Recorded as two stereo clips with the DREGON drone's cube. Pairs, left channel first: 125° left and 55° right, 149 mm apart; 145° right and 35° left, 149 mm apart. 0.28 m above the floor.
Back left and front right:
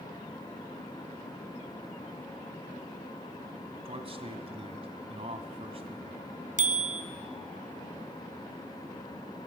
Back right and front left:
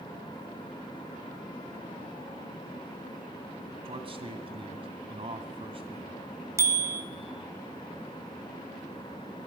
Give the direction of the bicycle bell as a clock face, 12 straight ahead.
1 o'clock.